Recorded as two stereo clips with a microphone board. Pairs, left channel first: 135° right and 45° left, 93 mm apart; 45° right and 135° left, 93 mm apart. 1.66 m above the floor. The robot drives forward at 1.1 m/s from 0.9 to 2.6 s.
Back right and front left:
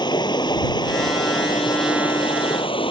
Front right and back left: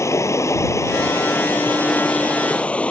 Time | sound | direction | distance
0.0 | running water | 100° right | ?